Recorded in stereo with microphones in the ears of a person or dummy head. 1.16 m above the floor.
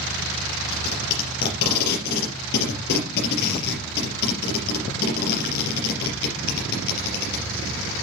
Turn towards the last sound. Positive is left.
turn(degrees=60)  # may be behind; listen again after turning